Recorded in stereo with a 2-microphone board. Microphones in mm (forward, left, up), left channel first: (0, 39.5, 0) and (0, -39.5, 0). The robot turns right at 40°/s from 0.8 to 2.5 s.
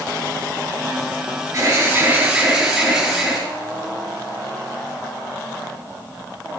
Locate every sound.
1.5 s an alarm: 45° right, 7 m; by 3.4 s 10° right, 7 m